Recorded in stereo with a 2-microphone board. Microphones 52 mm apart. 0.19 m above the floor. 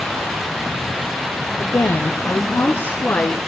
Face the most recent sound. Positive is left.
turn(degrees=25)  # may be behind; listen again after turning